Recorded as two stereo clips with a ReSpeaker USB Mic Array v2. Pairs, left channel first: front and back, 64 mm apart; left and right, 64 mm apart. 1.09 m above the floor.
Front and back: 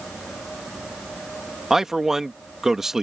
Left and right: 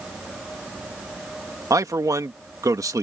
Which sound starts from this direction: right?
A man speaking, at 1.7 s.